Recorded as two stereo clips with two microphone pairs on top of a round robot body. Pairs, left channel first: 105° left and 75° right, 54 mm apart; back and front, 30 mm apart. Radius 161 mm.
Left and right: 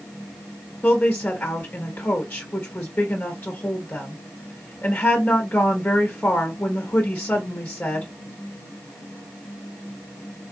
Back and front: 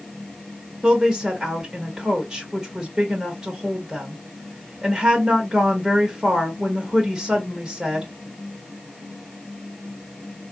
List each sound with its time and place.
0.8 s a woman speaking: 45° left, 1.3 m